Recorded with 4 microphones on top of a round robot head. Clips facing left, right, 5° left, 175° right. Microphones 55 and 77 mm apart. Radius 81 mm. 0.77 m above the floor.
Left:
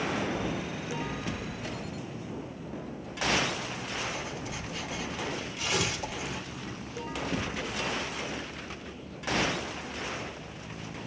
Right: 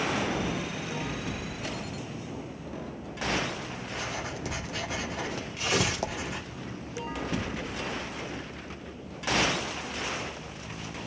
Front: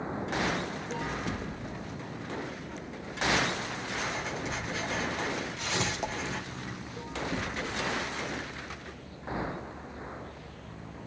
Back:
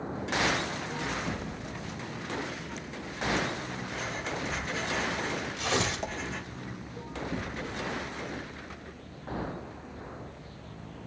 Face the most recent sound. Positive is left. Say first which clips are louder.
# right 4 dB, back 2 dB
turn(degrees=-145)